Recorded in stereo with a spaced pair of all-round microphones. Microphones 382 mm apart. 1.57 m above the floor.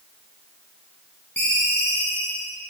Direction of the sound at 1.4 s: 25° left (ahead or behind).